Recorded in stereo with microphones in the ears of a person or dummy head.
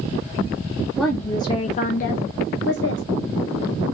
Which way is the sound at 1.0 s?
5° right (ahead or behind).